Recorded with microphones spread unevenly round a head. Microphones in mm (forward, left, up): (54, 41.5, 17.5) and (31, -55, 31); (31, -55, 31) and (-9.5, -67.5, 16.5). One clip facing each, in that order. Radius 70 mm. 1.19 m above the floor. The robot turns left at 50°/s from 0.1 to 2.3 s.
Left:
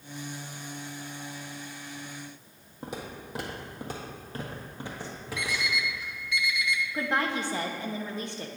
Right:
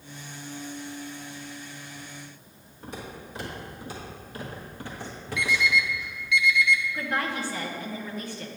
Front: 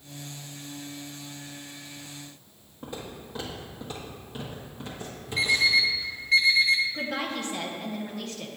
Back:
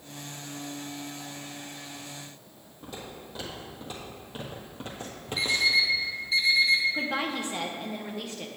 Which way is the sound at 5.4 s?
25° left.